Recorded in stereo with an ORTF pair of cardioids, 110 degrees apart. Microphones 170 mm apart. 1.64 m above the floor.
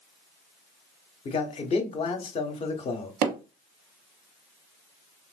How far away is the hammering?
About 1.0 m.